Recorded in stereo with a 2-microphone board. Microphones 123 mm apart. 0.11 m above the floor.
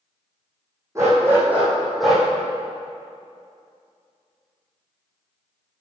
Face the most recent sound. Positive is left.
turn(degrees=5)  # may be behind; listen again after turning